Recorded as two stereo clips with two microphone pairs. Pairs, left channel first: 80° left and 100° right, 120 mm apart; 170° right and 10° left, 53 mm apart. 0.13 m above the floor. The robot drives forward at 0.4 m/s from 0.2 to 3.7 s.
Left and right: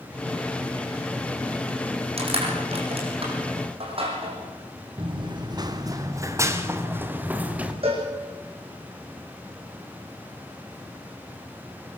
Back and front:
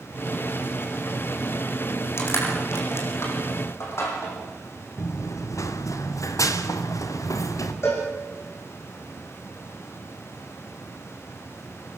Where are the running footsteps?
145° right, 2.5 m; by 7.7 s 175° right, 3.5 m.